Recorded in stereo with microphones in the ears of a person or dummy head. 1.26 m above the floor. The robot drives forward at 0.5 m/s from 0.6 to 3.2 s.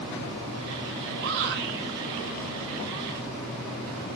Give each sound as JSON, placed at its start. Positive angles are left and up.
{"t": 1.2, "sound": "a shout", "side_deg": -65, "distance_m": 6.5}